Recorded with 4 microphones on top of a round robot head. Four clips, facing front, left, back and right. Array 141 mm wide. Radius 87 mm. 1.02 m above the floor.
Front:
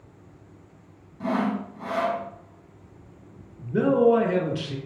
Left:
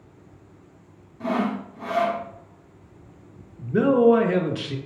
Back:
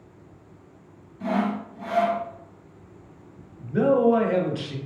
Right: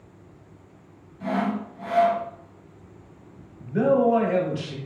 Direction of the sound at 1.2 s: 40° left.